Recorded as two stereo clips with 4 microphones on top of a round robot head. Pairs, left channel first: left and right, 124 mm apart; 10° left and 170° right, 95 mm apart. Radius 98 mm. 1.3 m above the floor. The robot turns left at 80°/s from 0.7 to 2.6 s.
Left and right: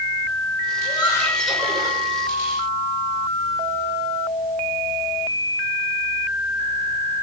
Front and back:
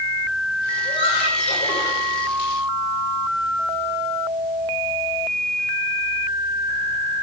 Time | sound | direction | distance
0.8 | laughter | 50° left | 6.5 m